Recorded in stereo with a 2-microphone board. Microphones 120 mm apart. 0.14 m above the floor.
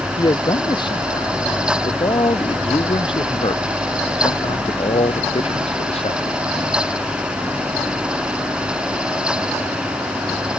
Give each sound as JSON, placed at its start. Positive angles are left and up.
{"t": 0.2, "sound": "a man speaking", "side_deg": 35}